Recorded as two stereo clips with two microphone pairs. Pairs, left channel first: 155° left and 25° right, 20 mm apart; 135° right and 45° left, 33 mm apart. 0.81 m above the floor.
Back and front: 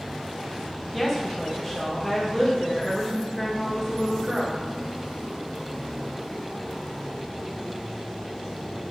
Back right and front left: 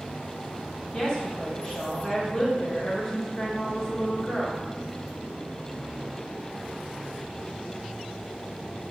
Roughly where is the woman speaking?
Behind right.